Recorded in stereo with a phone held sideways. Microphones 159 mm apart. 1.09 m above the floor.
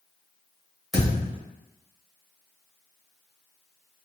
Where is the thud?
Centre (ahead or behind), 1.8 m.